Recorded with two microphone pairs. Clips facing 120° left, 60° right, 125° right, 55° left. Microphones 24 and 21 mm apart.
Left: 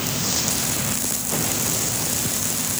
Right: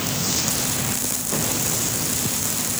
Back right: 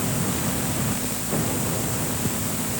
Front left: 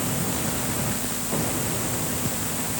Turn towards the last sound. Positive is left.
No sound to turn to.